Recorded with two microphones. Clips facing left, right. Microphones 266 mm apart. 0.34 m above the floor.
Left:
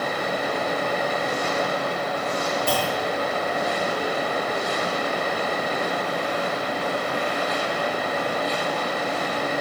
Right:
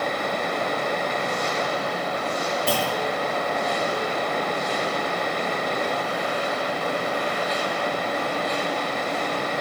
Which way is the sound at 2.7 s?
35° right (ahead or behind).